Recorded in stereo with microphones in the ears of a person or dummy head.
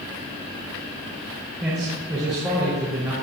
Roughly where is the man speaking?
Centre.